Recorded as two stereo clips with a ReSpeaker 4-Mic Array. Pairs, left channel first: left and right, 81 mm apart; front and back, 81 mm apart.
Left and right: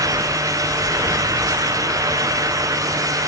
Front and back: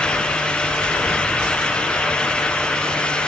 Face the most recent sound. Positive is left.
No sound to turn to.